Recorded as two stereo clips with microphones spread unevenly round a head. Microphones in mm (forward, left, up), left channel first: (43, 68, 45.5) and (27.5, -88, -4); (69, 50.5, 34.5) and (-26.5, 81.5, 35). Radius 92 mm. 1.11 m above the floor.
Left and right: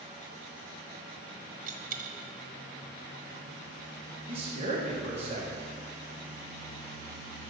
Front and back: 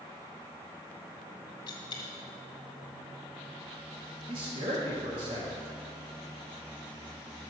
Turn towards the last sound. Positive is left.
turn(degrees=-150)